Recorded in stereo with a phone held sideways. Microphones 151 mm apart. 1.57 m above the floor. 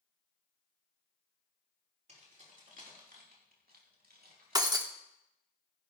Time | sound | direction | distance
2.1 | keys jangling | 50° right (ahead or behind) | 3.5 m
4.5 | breaking glass | 25° right (ahead or behind) | 1.2 m